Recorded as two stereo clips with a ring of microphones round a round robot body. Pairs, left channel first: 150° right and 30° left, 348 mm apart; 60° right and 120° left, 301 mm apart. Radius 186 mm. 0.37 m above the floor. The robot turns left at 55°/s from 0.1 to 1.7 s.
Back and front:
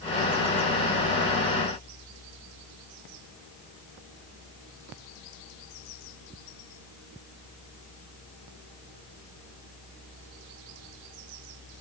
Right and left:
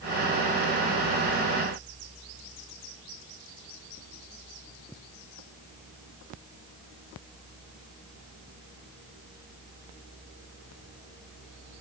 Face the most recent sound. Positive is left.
No sound to turn to.